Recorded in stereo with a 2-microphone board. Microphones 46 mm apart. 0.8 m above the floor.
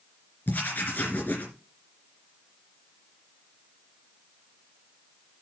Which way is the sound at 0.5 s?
50° left (ahead or behind).